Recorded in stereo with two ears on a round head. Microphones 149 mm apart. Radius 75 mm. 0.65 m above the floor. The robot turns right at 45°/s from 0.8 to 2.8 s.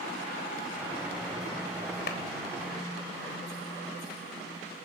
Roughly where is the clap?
Left.